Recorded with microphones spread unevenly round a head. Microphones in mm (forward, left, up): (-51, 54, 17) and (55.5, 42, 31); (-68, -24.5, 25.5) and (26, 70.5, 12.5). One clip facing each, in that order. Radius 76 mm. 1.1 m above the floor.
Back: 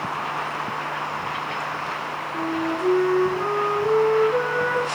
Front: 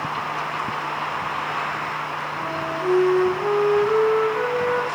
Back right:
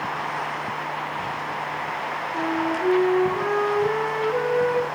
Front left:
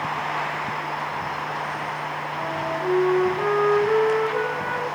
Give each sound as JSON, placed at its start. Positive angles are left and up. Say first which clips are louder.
{"t": 2.3, "sound": "a flute", "louder": "back 5 dB, back right 4 dB", "azimuth_deg": -140, "distance_m": 3.5}